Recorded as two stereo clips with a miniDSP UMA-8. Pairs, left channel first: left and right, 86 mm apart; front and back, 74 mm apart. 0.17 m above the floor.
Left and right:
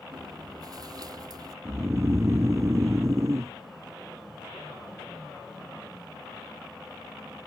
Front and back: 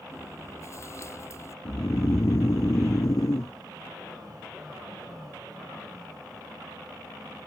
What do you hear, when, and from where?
0.1 s chewing: 50° right
1.6 s snoring: 35° right